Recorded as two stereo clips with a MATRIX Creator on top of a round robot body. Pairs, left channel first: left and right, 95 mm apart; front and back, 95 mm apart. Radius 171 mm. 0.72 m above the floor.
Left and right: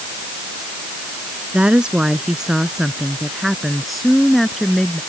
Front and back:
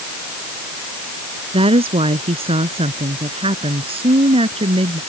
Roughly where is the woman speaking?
Behind.